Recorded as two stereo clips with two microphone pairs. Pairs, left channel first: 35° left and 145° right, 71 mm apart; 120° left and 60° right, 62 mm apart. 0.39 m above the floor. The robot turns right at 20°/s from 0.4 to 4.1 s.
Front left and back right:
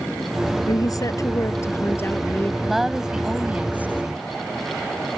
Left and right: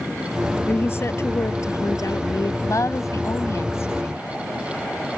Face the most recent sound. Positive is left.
turn(degrees=160)